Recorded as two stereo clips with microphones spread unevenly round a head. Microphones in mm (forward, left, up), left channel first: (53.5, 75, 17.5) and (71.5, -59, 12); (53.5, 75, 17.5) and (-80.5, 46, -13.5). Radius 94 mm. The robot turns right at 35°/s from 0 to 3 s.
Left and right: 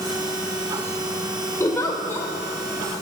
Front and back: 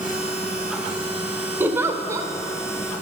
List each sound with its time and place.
1.6 s a giggle: 100° left, 0.6 m; by 2.3 s 125° left, 0.6 m